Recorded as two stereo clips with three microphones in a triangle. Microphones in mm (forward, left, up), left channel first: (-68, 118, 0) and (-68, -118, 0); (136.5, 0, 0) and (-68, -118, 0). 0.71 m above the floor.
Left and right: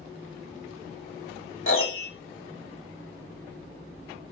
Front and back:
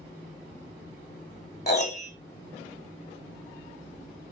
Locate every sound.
1.7 s a piano: 70° left, 0.9 m